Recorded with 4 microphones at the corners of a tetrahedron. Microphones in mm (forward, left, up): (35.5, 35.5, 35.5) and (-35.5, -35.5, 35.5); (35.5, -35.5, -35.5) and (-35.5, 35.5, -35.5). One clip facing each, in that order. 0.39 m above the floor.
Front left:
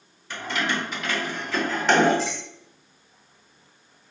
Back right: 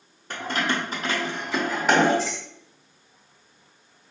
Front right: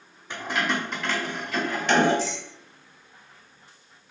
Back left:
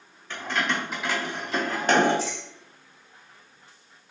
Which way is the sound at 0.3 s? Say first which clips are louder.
Back right 1 dB, front right 1 dB; 110° right.